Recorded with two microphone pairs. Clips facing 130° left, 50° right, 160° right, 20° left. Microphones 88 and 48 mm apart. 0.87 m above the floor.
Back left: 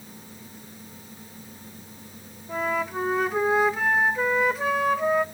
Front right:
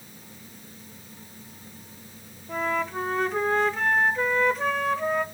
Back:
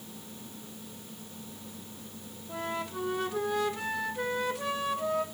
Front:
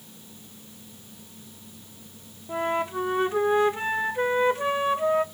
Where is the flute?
50° left, 0.9 m.